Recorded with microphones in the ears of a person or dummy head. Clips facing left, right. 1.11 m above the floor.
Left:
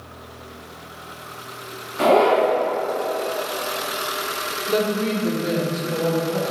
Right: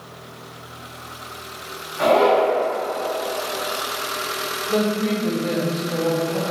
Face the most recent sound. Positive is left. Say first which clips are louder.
# even
turn(degrees=25)  # may be behind; listen again after turning